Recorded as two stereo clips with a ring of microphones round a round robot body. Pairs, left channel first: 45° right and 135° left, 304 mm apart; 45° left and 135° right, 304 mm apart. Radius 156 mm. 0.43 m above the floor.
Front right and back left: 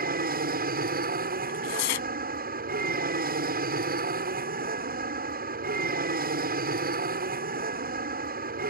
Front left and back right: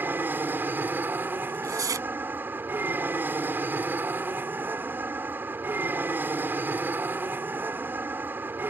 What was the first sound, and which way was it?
An aircraft, 145° left.